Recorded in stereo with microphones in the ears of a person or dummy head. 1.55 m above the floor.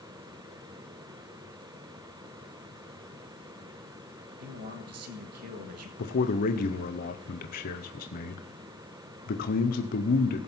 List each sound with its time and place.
4.4 s a man speaking: 55° right (ahead or behind), 1.3 m
6.0 s a man speaking: 40° left (ahead or behind), 0.7 m